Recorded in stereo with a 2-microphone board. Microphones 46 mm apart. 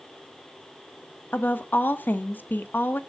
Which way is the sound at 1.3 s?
40° left (ahead or behind).